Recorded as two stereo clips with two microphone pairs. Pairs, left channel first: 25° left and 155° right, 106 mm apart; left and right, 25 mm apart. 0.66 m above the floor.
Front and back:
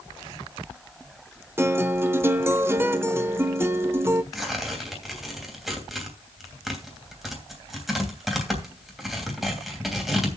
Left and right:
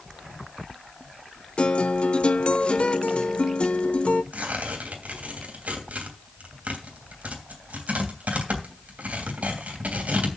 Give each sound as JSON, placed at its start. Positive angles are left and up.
{"t": 1.6, "sound": "a guitar", "azimuth_deg": 140, "distance_m": 0.8}
{"t": 4.3, "sound": "tearing paper", "azimuth_deg": -70, "distance_m": 3.0}